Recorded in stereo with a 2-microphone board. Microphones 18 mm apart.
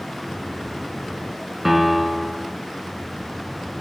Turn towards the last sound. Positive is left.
turn(degrees=-15)  # may be behind; listen again after turning